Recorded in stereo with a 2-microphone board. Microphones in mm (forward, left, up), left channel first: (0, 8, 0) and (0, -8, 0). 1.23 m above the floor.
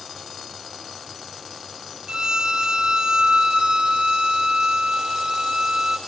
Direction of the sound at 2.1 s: 50° right (ahead or behind).